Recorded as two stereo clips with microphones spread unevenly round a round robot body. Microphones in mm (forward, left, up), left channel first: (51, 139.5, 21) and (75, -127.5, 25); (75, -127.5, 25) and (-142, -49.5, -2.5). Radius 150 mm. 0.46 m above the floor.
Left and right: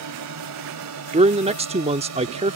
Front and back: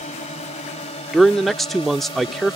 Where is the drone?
80° right; by 2.6 s 90° right.